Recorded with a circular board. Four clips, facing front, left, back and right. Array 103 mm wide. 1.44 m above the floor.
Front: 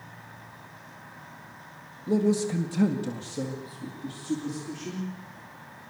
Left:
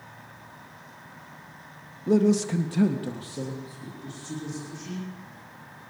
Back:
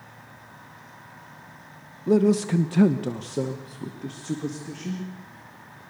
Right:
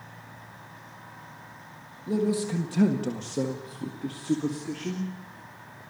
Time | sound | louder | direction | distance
2.1 | a man speaking | left 5 dB, back 5 dB | 150° left | 1.7 m